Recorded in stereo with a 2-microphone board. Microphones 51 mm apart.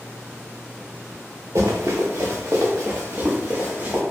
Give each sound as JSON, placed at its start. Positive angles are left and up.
{"t": 1.6, "sound": "running footsteps", "side_deg": -85, "distance_m": 1.1}